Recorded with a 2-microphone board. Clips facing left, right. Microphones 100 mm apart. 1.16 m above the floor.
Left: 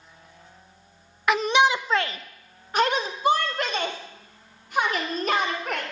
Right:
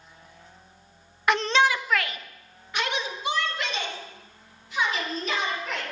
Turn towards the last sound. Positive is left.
turn(degrees=50)  # may be behind; listen again after turning